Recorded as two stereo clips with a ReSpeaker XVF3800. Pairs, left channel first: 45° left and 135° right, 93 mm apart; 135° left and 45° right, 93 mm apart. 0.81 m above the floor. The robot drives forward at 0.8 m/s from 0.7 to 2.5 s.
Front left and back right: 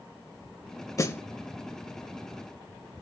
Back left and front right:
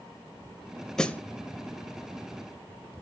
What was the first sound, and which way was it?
A snare drum, 55° left.